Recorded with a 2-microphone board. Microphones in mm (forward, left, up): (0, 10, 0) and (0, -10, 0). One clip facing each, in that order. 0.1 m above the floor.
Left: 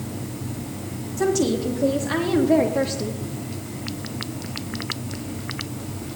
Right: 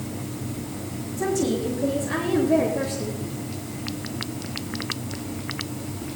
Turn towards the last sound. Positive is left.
turn(degrees=45)  # may be behind; listen again after turning